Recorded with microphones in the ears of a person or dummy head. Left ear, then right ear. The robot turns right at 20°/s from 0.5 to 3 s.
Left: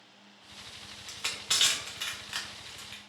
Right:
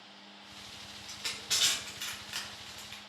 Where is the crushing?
35° left (ahead or behind), 0.5 m; by 3.0 s 5° right (ahead or behind), 0.5 m.